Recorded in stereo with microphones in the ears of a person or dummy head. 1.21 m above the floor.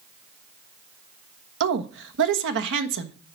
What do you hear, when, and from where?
1.6 s a woman speaking: 65° right (ahead or behind), 1.3 m